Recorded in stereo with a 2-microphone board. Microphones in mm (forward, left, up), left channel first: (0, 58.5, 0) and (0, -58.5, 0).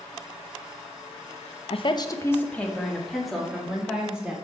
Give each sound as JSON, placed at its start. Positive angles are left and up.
{"t": 1.7, "sound": "a woman speaking", "side_deg": 55, "distance_m": 0.6}